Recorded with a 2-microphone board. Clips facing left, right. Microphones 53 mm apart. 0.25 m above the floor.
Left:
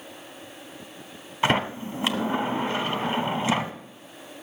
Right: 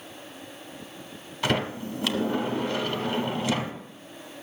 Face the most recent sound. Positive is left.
turn(degrees=25)  # may be behind; listen again after turning